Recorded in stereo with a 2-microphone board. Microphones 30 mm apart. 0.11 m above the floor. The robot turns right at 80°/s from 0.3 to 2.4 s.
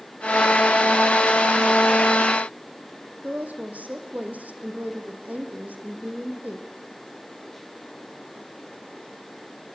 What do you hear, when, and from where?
3.2 s a woman speaking: 65° right (ahead or behind), 5 m